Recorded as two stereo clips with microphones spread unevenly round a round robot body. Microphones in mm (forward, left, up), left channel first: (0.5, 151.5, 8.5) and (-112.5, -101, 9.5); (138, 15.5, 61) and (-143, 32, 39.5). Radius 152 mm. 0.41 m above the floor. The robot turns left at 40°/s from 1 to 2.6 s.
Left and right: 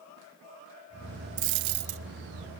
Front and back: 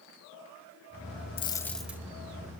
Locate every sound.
1.4 s a dropped coin: 75° right, 0.6 m; by 2.0 s 100° right, 0.6 m